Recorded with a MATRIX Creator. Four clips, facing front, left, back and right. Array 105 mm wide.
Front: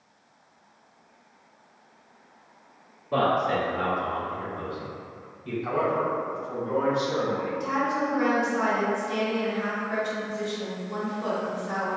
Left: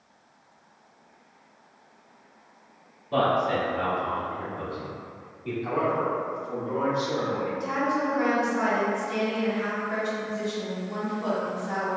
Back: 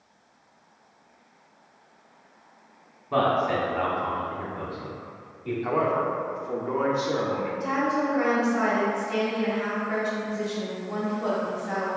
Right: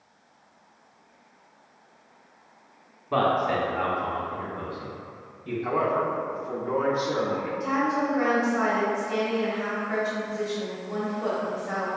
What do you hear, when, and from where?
3.1 s a man speaking: 110° right, 1.2 m; by 5.5 s 140° left, 1.4 m
5.6 s a man speaking: 145° right, 0.8 m
7.6 s a woman speaking: 145° right, 1.4 m